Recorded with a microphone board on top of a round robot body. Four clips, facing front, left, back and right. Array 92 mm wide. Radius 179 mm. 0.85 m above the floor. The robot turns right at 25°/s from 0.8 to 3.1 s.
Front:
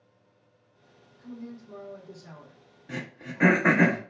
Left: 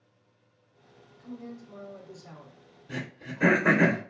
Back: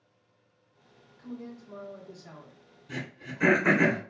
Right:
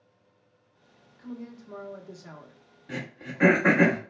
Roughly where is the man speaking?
Right.